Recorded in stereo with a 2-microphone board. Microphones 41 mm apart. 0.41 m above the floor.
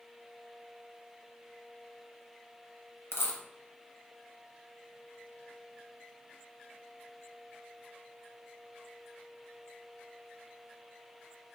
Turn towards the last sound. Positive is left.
turn(degrees=75)  # may be behind; listen again after turning